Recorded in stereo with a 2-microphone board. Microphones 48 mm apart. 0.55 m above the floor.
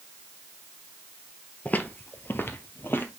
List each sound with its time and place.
1.6 s footsteps: 35° left (ahead or behind), 0.7 m; by 3.1 s 50° left (ahead or behind), 1.0 m